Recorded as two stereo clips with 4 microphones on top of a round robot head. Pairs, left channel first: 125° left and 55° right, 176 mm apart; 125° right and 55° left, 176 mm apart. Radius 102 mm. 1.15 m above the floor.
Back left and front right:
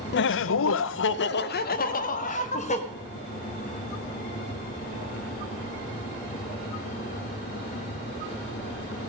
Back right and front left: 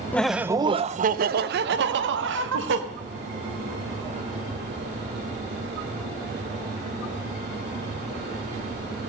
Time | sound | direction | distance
0.1 | laughter | 155° left | 0.5 m